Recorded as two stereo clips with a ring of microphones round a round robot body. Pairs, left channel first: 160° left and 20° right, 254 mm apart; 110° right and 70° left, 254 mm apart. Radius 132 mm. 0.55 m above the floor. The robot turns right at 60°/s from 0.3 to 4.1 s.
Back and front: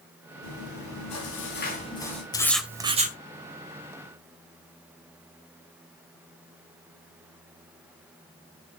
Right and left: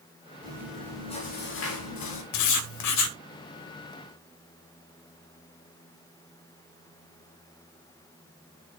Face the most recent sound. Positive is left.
turn(degrees=-20)